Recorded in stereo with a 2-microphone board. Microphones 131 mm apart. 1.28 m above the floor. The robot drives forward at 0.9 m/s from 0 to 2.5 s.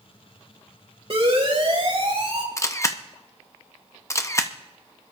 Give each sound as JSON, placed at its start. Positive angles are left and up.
{"t": 1.1, "sound": "a siren", "side_deg": -50, "distance_m": 6.0}
{"t": 2.6, "sound": "a camera shutter", "side_deg": 25, "distance_m": 0.7}